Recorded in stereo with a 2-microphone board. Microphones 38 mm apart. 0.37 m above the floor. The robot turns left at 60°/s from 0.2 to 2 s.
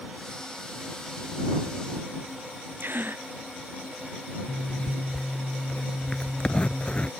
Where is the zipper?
25° left (ahead or behind).